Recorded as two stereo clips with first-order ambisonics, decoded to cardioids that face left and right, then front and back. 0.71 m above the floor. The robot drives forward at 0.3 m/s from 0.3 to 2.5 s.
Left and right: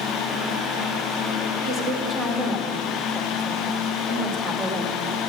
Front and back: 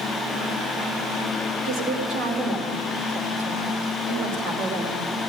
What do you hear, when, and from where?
1.6 s a woman speaking: 150° right, 2 m; by 5.0 s 155° right, 2.5 m